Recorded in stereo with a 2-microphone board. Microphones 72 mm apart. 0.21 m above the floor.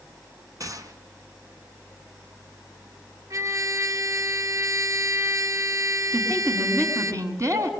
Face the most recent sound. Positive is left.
turn(degrees=-45)  # may be behind; listen again after turning